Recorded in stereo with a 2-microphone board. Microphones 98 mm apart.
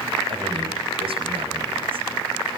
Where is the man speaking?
65° right (ahead or behind), 4 m.